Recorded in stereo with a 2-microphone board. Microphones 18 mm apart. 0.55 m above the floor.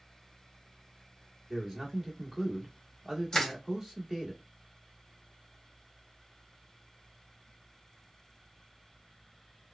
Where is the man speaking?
25° right (ahead or behind), 1.7 m.